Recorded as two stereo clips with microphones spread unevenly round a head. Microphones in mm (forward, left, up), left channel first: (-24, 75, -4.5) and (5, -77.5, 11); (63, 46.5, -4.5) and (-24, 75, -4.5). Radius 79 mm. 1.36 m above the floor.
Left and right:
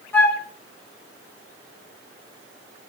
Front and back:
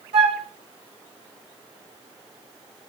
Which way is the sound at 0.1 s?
Straight behind.